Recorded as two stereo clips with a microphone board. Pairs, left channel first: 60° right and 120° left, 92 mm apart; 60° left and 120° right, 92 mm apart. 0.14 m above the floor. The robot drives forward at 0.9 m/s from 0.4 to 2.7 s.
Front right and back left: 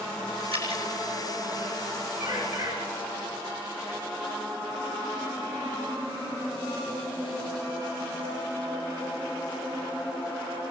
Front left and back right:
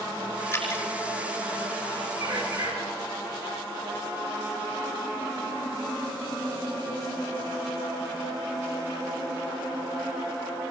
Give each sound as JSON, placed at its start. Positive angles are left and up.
{"t": 0.5, "sound": "dripping", "azimuth_deg": 125, "distance_m": 5.5}
{"t": 2.2, "sound": "a bird", "azimuth_deg": -170, "distance_m": 7.5}